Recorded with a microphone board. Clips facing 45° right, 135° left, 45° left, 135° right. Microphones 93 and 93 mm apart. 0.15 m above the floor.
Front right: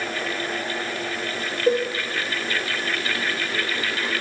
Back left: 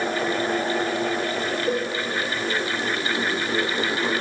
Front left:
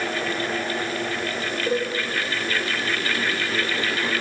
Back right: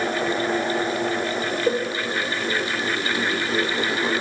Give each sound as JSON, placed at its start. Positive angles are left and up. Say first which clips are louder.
{"t": 1.7, "sound": "a cowbell", "louder": "front right 7 dB, back right 1 dB", "azimuth_deg": -75, "distance_m": 9.5}